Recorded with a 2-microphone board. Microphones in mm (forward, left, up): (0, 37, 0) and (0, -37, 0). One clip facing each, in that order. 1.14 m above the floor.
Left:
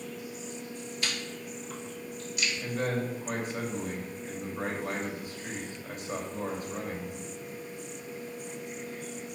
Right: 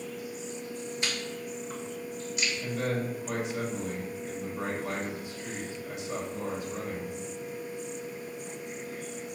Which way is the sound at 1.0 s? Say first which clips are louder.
Even; 25° right (ahead or behind).